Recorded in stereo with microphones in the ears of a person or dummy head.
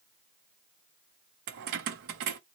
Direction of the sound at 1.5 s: 55° right (ahead or behind).